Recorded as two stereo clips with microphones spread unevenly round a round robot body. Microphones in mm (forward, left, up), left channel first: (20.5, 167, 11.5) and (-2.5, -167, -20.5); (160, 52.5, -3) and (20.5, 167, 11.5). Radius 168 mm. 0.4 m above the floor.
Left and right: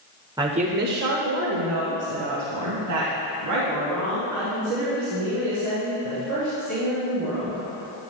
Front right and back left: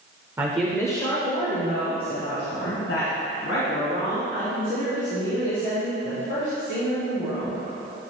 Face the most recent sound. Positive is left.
turn(degrees=-55)